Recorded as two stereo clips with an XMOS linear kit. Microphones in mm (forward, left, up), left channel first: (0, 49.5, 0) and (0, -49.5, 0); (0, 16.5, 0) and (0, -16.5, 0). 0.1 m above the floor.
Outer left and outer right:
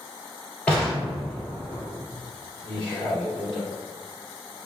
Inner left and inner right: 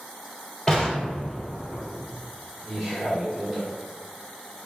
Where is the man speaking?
Centre (ahead or behind), 1.7 m.